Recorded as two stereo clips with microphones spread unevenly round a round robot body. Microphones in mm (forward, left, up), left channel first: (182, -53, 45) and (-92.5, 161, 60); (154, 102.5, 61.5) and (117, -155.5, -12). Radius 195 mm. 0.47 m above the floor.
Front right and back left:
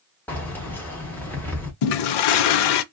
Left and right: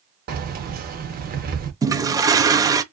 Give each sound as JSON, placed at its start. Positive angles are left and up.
{"t": 0.3, "sound": "keys jangling", "azimuth_deg": -120, "distance_m": 0.6}
{"t": 1.8, "sound": "a toilet flushing", "azimuth_deg": -20, "distance_m": 0.5}